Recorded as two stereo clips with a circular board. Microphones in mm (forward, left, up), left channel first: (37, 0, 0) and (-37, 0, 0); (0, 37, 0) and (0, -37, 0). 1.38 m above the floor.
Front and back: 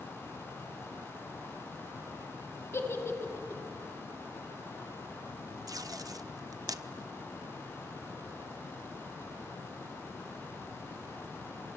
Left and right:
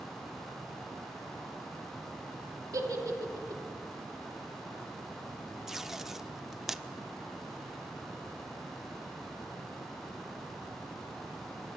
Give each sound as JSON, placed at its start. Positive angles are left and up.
{"t": 2.7, "sound": "a giggle", "azimuth_deg": -50, "distance_m": 2.5}
{"t": 5.7, "sound": "tape being pulled", "azimuth_deg": -175, "distance_m": 0.7}